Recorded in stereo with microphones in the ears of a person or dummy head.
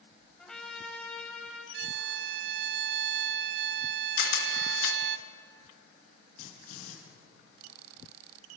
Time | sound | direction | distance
0.4 | a trumpet | 5° left (ahead or behind) | 3.5 m
1.7 | a violin | 60° right (ahead or behind) | 0.7 m
4.2 | a camera shutter | 55° left (ahead or behind) | 3 m
6.4 | a drill | 50° left (ahead or behind) | 7.5 m